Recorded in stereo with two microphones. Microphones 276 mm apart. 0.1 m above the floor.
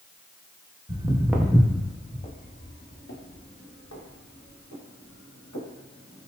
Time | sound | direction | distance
0.9 | footsteps | 15° right (ahead or behind) | 1.2 m